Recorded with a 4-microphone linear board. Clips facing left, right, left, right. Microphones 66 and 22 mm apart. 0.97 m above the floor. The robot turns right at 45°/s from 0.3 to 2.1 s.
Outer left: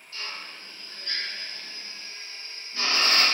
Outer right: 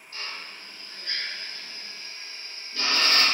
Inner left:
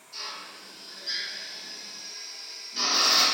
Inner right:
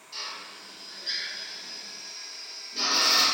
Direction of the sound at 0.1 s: 40° right (ahead or behind).